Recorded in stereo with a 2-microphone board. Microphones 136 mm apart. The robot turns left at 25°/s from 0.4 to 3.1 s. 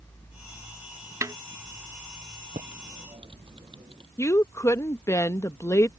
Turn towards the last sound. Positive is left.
turn(degrees=20)  # may be behind; listen again after turning